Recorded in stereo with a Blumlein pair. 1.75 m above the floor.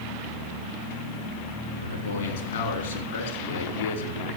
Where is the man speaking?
65° left, 4 m.